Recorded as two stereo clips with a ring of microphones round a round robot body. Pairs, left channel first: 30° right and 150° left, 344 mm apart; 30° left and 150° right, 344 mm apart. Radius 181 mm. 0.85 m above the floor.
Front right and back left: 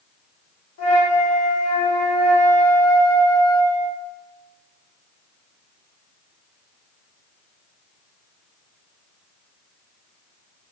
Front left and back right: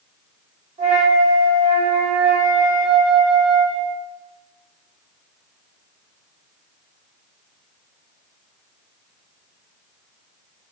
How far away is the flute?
About 0.9 m.